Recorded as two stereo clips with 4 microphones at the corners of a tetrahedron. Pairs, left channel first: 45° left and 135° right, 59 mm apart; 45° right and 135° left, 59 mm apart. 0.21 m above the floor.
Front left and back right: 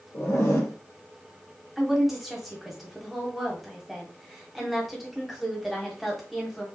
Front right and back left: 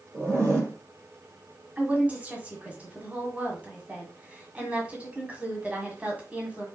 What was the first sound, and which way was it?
A zipper, 85° left.